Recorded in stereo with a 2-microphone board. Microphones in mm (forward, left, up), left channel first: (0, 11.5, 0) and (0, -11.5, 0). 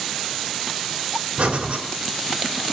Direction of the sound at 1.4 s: 70° right (ahead or behind).